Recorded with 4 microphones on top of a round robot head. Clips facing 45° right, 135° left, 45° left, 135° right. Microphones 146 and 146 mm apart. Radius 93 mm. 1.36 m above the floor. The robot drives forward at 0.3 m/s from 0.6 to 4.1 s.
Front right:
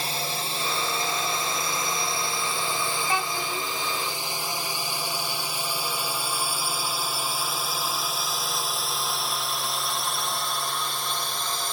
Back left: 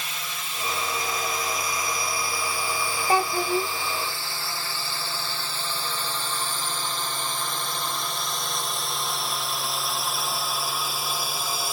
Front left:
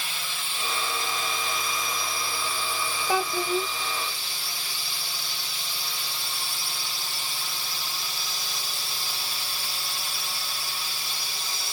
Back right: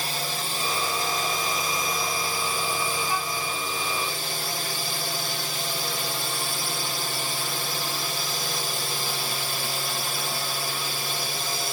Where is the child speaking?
75° left; by 3.7 s 90° left.